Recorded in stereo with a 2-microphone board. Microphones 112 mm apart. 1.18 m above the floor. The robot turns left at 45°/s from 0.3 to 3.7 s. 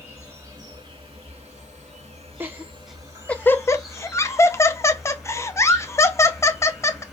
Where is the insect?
25° right, 2.5 m; by 7.1 s straight behind, 2.5 m.